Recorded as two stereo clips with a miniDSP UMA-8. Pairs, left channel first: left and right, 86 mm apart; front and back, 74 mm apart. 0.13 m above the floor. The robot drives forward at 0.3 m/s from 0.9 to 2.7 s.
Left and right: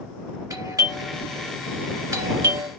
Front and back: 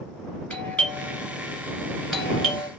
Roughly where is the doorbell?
Ahead right.